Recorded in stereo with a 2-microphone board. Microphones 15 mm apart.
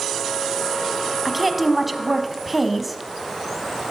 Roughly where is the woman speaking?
Centre.